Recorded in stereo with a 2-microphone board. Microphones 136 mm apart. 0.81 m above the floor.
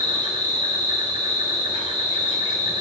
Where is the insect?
35° right (ahead or behind), 3 m.